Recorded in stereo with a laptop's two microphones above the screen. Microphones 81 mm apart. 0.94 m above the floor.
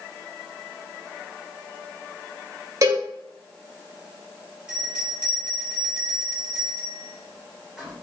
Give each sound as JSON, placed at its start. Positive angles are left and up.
{"t": 2.8, "sound": "a cowbell", "side_deg": -45, "distance_m": 1.8}
{"t": 4.7, "sound": "a bell", "side_deg": -5, "distance_m": 2.5}